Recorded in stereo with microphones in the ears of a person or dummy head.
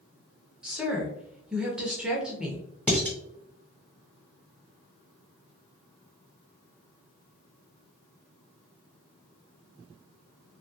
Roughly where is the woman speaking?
Centre.